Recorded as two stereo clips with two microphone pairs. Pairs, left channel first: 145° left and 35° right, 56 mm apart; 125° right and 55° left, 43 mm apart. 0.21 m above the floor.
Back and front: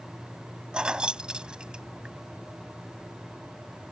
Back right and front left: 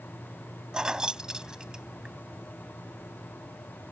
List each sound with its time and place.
0.7 s keys jangling: 10° left